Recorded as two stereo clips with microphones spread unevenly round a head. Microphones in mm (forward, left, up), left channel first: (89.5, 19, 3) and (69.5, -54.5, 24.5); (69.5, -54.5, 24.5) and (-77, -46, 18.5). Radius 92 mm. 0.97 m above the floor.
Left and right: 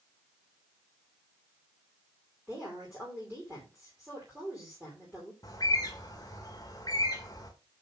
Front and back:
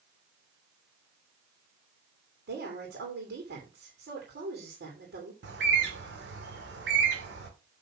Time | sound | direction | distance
2.5 | a woman speaking | 170° left | 3 m
5.4 | a bird | 150° left | 1.7 m